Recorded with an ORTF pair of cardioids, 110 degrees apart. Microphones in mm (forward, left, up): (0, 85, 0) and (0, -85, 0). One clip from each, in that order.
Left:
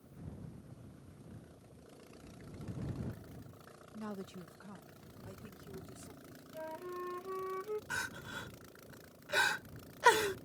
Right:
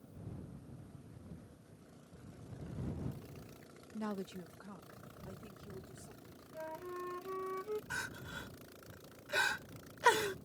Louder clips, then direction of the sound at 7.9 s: Left 2 dB; 15° left.